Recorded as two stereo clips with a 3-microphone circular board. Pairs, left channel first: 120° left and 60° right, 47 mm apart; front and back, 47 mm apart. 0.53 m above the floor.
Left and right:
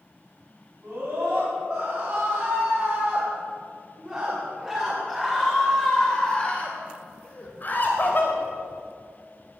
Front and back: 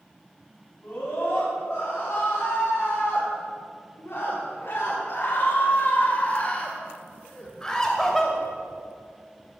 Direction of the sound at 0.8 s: 25° right.